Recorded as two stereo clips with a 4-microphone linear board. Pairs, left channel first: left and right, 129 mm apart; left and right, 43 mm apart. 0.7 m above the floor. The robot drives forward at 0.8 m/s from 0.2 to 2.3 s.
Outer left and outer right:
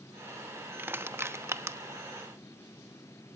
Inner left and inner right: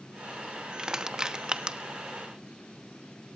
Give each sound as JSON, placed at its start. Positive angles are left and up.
{"t": 0.8, "sound": "crushing", "side_deg": -15, "distance_m": 1.2}